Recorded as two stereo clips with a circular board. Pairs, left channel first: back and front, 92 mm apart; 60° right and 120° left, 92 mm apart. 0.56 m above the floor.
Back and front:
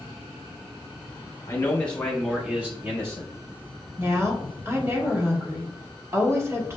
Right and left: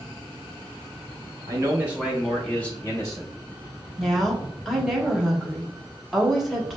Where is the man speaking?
140° left, 1.0 m; by 3.3 s 40° right, 1.1 m.